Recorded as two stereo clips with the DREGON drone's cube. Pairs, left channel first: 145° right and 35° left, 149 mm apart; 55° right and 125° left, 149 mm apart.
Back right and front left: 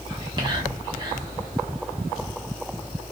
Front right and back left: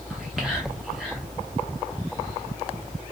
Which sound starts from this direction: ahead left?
Whispering, at 0.1 s.